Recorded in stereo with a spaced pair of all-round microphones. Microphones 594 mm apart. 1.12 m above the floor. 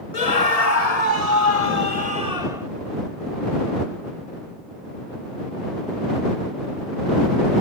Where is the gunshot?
No gunshot in this recording.